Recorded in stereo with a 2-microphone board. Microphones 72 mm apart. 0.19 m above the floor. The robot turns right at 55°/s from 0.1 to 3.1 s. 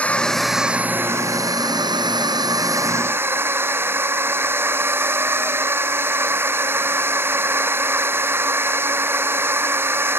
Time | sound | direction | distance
0.0 | a drone | 160° left | ?